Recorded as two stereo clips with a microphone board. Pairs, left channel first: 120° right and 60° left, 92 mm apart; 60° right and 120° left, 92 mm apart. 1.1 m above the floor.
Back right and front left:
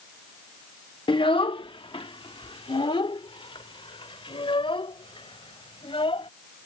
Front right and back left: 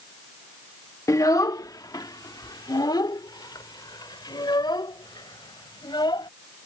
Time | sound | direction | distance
1.1 | a child speaking | 110° right | ?